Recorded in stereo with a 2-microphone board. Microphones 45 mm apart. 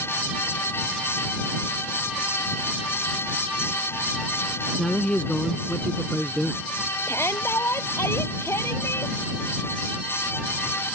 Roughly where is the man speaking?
Left.